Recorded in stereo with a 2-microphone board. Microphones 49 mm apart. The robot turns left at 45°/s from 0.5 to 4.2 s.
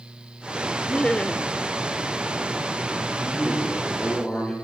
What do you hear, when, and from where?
0.9 s laughter: 20° left (ahead or behind), 0.9 m
3.2 s a man speaking: 60° left, 9.5 m; by 4.5 s 15° left, 9.5 m